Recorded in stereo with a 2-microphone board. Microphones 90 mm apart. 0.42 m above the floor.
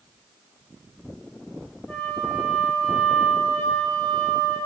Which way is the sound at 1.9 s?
15° left (ahead or behind).